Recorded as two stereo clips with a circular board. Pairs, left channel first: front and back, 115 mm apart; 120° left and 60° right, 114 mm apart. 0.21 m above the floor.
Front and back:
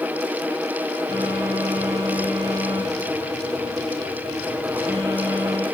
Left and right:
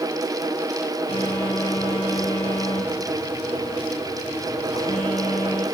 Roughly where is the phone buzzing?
Behind left.